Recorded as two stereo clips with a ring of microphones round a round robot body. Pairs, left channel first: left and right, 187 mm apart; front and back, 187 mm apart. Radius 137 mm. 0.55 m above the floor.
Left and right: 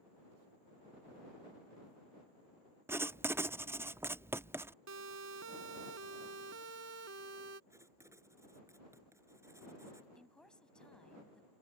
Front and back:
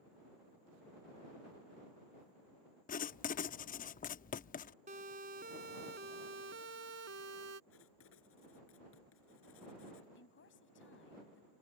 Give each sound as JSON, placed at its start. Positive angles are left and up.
{"t": 2.9, "sound": "writing", "azimuth_deg": -15}
{"t": 4.9, "sound": "a siren", "azimuth_deg": -115}
{"t": 7.7, "sound": "writing", "azimuth_deg": -15}
{"t": 10.2, "sound": "a woman speaking", "azimuth_deg": 5}